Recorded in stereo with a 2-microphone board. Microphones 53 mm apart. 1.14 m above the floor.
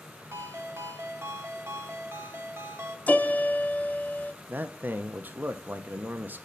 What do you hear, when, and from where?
0.3 s a ringtone: 55° right (ahead or behind), 0.7 m
3.1 s a piano: 30° left (ahead or behind), 0.5 m
4.5 s a man speaking: 35° right (ahead or behind), 0.6 m